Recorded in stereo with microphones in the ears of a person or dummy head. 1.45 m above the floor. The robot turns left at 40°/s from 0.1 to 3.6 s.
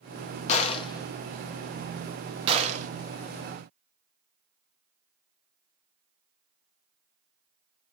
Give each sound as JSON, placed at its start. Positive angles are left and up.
{"t": 0.5, "sound": "a gunshot", "side_deg": 45, "distance_m": 0.7}